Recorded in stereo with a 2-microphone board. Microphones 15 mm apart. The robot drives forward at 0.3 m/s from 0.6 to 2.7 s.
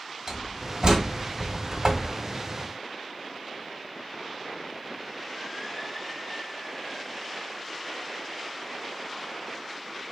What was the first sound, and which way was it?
A door slam, 50° right (ahead or behind).